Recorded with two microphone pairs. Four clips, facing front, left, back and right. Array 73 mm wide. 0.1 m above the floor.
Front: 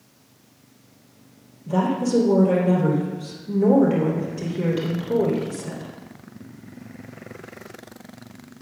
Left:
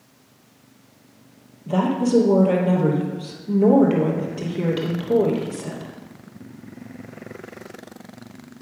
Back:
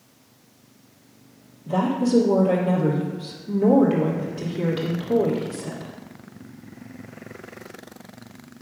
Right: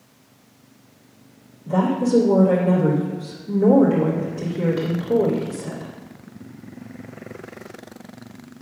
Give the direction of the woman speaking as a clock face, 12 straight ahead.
9 o'clock.